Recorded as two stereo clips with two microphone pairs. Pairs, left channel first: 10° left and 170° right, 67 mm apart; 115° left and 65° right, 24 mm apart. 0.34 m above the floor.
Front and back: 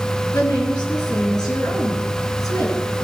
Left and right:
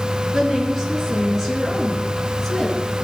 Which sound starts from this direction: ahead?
A woman speaking, at 0.3 s.